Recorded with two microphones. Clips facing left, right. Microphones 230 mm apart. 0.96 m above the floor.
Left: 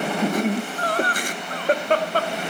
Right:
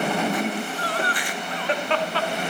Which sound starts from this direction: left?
Laughter, at 0.2 s.